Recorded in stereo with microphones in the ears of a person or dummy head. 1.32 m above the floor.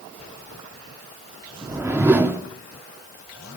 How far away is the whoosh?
About 1.2 m.